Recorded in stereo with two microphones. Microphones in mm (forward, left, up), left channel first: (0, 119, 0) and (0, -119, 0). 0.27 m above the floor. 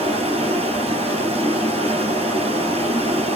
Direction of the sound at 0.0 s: 25° right (ahead or behind).